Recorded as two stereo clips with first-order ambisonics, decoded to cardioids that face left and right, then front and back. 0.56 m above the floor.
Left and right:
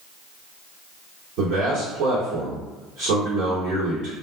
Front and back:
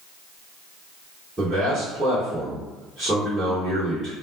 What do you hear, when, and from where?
1.4 s a man speaking: 110° right, 1.8 m